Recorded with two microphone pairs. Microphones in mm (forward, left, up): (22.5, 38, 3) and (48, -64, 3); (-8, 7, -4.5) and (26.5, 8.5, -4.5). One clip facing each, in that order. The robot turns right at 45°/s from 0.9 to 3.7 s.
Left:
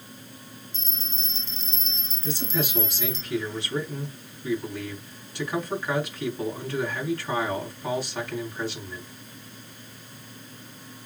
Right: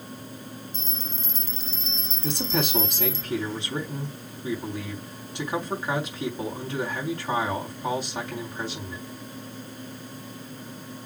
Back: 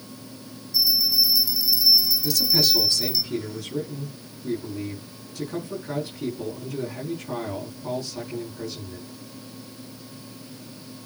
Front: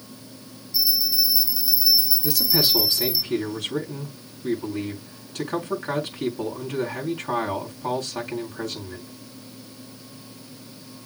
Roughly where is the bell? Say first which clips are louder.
Right 5 dB, back 2 dB; ahead right.